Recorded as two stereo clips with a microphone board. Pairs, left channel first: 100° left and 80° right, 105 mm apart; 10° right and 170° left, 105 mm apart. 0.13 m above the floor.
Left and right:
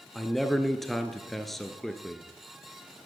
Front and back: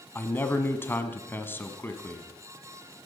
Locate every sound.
0.1 s a man speaking: 15° left, 1.1 m